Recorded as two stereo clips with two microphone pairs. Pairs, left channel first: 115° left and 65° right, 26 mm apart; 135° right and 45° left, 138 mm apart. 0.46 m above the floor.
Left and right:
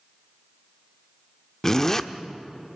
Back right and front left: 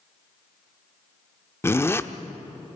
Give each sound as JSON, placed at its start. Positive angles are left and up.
{"t": 1.6, "sound": "a zipper", "azimuth_deg": 170, "distance_m": 0.8}